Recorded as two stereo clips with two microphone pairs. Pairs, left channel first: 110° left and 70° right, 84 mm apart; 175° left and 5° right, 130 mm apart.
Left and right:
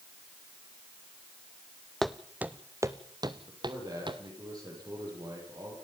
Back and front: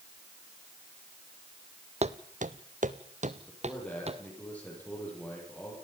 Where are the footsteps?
25° left, 0.8 m; by 4.2 s 45° right, 1.7 m.